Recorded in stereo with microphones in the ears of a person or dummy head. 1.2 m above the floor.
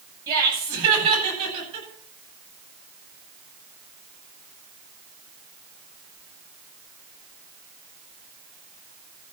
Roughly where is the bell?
I don't hear a bell.